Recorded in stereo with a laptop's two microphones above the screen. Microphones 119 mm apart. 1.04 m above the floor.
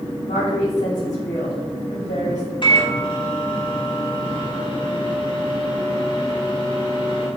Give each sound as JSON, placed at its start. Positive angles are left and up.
{"t": 0.2, "sound": "a woman speaking", "side_deg": 85, "distance_m": 1.8}
{"t": 2.6, "sound": "a microwave", "side_deg": 40, "distance_m": 1.0}